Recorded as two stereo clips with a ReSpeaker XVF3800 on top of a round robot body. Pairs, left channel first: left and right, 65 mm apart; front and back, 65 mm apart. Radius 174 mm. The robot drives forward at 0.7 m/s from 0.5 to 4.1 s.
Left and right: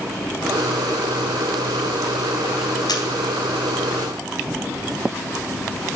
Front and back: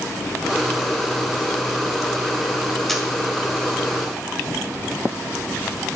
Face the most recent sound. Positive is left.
turn(degrees=110)